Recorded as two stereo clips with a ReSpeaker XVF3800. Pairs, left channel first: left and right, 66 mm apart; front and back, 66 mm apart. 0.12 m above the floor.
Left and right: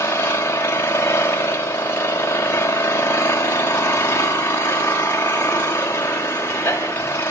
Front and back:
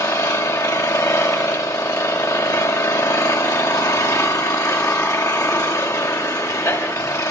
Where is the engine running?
30° left, 6.5 m.